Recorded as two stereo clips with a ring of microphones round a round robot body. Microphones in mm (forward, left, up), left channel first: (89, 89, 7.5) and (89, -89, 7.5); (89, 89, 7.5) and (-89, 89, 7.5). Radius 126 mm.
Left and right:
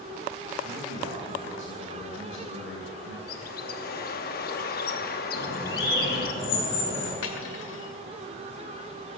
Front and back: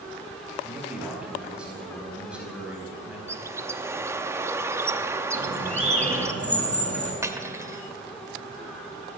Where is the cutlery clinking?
105° left, 1.4 m.